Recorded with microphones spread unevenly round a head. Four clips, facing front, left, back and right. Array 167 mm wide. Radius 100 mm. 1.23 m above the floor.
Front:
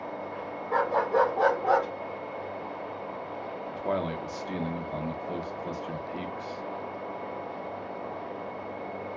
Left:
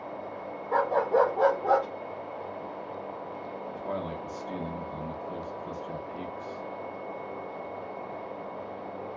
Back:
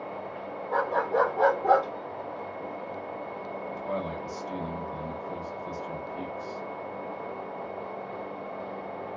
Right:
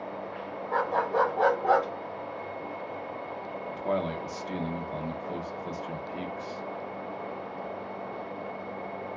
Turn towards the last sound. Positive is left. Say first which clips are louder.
# right 5 dB, front 4 dB
turn(degrees=-40)